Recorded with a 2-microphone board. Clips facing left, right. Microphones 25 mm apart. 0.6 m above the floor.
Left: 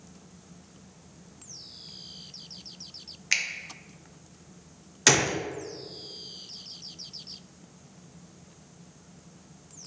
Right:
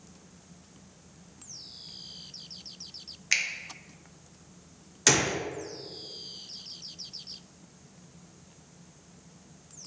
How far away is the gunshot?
About 0.5 m.